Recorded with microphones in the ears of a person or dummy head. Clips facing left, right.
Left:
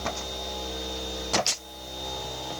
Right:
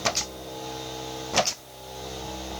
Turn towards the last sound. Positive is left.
No sound to turn to.